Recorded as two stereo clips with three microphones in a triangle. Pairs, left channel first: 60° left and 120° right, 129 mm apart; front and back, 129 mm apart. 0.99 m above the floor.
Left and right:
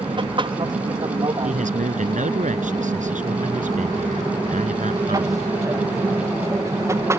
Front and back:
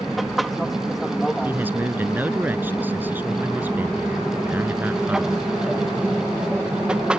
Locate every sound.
0.0 s an aircraft: 90° right; by 7.2 s 110° right
1.4 s a man speaking: 105° right